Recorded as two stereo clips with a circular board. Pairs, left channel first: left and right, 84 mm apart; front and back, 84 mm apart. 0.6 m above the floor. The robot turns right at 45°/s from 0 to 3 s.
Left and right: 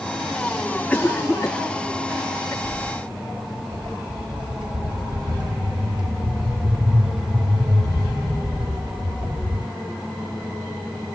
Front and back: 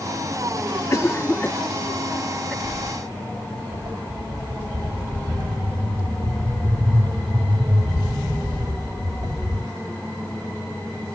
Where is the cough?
20° left, 0.9 m; by 2.5 s 95° left, 0.9 m.